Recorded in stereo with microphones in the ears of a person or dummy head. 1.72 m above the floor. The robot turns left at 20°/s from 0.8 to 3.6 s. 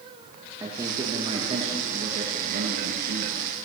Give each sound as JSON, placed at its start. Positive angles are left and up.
{"t": 0.6, "sound": "a man speaking", "azimuth_deg": -25, "distance_m": 3.0}